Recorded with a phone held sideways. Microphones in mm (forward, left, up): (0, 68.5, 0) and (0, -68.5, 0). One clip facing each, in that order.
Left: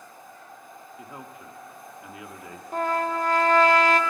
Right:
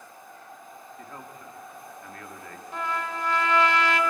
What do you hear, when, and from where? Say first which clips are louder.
1.0 s a man speaking: left 2 dB; 10° left (ahead or behind), 1.8 m
2.7 s a trumpet: left 6 dB; 45° left (ahead or behind), 1.5 m